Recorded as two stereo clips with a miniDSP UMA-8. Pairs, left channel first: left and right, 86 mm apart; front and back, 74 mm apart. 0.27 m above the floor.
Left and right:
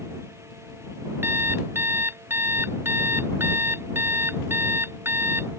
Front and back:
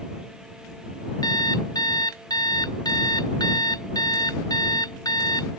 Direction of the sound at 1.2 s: 25° right.